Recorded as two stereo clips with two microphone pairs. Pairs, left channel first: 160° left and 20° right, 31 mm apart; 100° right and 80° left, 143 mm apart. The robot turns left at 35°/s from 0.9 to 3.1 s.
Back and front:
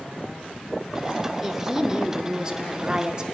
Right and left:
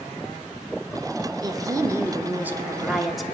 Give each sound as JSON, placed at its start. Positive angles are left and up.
{"t": 1.4, "sound": "a woman speaking", "azimuth_deg": 50, "distance_m": 0.9}